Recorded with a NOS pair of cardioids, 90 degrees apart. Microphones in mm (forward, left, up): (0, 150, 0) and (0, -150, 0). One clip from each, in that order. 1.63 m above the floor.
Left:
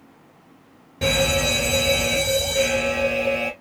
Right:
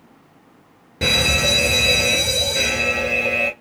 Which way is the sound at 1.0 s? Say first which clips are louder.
Right 3 dB; 40° right.